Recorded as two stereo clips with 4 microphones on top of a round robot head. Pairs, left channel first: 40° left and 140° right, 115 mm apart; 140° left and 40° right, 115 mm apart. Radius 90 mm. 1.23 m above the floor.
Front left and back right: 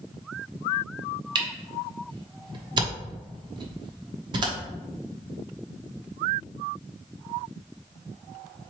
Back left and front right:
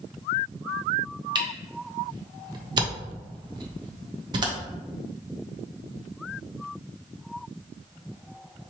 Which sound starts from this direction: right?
A camera shutter, at 1.4 s.